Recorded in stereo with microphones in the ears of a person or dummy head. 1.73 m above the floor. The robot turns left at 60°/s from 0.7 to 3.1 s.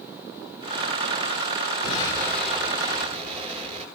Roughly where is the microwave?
I don't hear a microwave.